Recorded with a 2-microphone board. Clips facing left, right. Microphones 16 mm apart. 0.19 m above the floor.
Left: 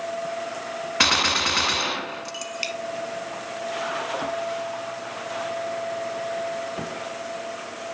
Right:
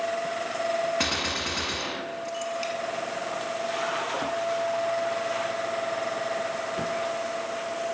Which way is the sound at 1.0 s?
35° left (ahead or behind).